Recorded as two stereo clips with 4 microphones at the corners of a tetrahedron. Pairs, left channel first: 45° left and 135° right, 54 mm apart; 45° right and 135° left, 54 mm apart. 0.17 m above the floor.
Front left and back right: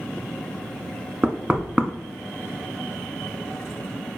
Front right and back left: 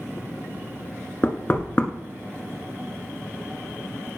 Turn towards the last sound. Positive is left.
turn(degrees=-75)